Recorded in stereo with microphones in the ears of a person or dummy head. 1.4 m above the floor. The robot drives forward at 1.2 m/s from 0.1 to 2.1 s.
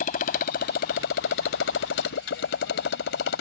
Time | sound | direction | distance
0.0 | a motorcycle | 50° left (ahead or behind) | ?